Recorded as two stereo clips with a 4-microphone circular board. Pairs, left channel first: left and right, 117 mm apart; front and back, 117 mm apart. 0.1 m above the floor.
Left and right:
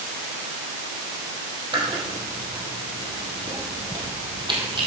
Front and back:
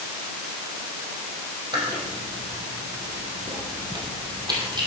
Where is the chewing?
130° right, 2.5 m.